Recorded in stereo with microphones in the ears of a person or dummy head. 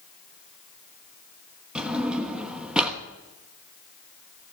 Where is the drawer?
5° right (ahead or behind), 1.1 m.